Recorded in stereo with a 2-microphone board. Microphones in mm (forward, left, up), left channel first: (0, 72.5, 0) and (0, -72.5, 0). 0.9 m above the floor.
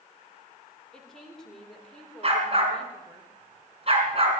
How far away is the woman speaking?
About 3 m.